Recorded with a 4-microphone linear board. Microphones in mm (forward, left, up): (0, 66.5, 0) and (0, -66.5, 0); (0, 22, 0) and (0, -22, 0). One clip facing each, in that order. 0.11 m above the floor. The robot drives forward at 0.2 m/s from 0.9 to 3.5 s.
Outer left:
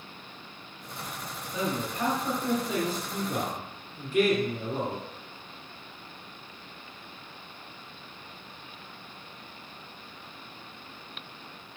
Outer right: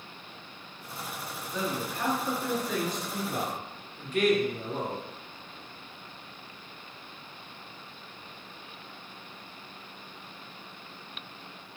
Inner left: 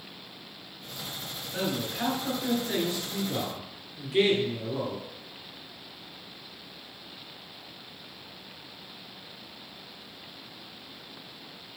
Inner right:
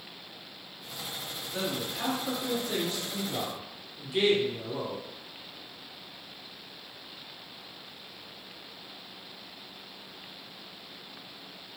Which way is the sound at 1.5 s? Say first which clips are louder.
Outer left 2 dB, inner left 2 dB; 5° left (ahead or behind).